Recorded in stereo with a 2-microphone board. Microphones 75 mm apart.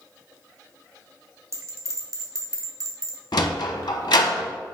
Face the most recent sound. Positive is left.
turn(degrees=75)  # may be behind; listen again after turning